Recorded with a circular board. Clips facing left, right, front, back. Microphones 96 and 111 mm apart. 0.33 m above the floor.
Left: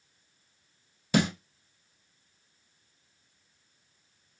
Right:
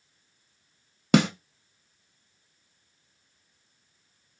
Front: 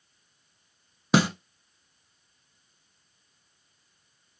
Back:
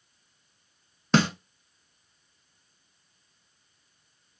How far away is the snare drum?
About 0.6 m.